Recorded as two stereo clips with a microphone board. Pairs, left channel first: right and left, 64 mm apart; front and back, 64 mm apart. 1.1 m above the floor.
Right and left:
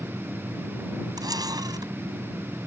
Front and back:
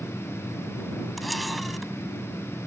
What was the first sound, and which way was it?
A camera shutter, 90° left.